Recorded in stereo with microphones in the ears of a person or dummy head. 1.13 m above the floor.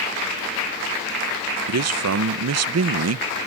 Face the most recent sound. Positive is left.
turn(degrees=-70)  # may be behind; listen again after turning